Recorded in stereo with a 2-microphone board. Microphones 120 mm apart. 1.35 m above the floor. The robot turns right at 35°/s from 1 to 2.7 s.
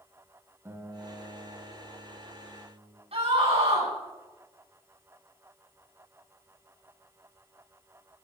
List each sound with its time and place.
0.7 s a guitar: 155° right, 3 m; by 3.0 s 95° right, 3 m
3.1 s a scream: 60° right (ahead or behind), 9.5 m